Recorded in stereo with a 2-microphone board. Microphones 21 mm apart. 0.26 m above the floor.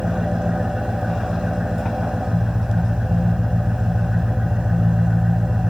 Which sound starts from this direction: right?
An engine running, at 0.0 s.